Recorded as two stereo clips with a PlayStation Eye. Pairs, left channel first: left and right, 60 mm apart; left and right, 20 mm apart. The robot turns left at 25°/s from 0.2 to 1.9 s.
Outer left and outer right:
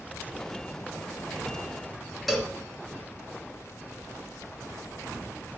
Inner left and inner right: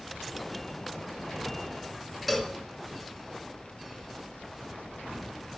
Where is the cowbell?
Centre (ahead or behind), 2.5 m.